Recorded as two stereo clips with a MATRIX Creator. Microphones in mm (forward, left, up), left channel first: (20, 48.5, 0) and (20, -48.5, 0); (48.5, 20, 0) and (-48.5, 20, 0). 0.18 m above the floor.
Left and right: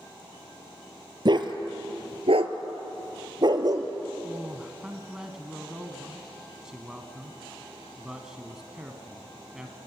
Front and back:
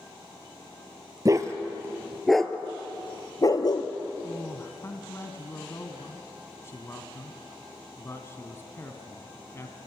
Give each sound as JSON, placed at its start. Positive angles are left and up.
{"t": 1.2, "sound": "a dog barking", "azimuth_deg": -130, "distance_m": 1.4}
{"t": 4.2, "sound": "a man speaking", "azimuth_deg": -15, "distance_m": 1.4}